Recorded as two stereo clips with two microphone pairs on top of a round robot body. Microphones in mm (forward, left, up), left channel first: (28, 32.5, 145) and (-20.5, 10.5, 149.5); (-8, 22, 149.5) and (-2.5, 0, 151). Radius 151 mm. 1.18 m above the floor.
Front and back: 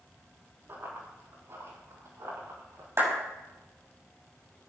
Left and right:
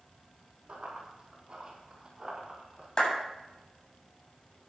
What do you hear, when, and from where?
0.7 s running footsteps: 110° right, 4.5 m; by 2.9 s 140° right, 5.5 m
3.0 s a clap: 160° left, 6.5 m